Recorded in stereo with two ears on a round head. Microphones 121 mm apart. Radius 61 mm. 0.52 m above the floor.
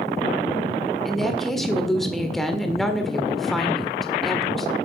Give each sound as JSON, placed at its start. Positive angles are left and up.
{"t": 1.1, "sound": "a woman speaking", "side_deg": 0, "distance_m": 1.7}